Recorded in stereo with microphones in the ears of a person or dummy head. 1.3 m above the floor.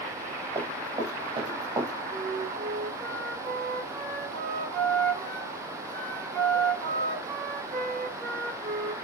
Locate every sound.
0.6 s running footsteps: 35° right (ahead or behind), 8.5 m; by 1.9 s 30° right (ahead or behind), 7 m
2.1 s a flute: 45° right (ahead or behind), 6 m